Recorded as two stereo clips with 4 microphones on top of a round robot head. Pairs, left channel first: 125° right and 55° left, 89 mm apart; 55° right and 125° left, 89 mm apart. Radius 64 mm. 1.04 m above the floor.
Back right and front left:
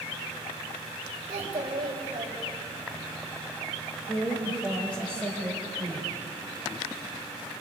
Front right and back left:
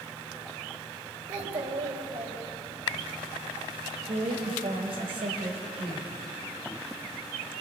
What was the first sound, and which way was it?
A child speaking, 100° left.